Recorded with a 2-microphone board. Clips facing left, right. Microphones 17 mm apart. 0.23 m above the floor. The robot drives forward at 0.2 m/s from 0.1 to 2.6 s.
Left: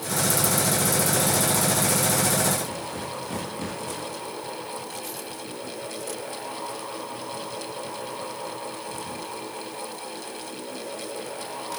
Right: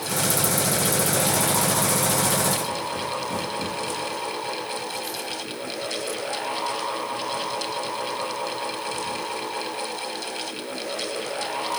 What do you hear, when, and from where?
Only background noise.